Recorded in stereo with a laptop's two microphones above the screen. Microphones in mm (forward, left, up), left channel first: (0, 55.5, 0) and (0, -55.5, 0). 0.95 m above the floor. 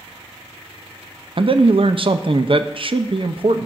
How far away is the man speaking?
About 0.6 m.